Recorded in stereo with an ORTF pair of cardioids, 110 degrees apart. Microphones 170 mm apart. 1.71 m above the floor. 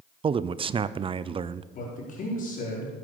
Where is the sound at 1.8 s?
50° left, 5.5 m.